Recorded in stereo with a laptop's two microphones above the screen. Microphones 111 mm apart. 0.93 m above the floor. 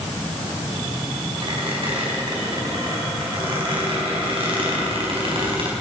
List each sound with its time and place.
1.4 s a squeak: 55° right (ahead or behind), 4 m